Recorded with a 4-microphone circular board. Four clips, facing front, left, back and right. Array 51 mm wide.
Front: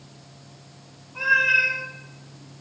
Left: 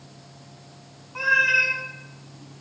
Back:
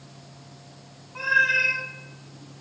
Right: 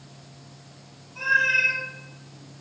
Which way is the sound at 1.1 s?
115° left.